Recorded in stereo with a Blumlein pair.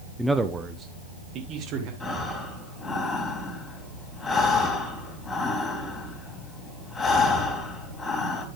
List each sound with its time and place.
0.2 s a man speaking: straight ahead, 0.7 m; by 1.9 s 40° right, 2.5 m
2.0 s breathing: 20° left, 3 m